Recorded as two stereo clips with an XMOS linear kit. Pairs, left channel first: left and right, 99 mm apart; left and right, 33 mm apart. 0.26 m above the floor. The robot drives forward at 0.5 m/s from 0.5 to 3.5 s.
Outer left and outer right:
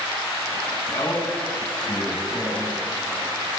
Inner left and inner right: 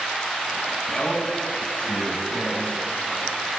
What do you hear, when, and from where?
0.9 s a man speaking: 50° left (ahead or behind), 2.5 m